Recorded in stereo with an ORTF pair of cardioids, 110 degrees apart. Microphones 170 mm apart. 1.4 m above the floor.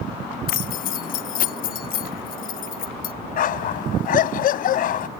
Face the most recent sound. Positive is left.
turn(degrees=65)